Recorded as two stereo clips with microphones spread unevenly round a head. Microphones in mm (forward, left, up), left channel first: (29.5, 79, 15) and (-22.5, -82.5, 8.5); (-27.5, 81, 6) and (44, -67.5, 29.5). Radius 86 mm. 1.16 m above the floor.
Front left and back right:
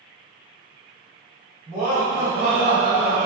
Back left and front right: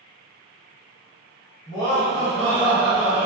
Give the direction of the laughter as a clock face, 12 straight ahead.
6 o'clock.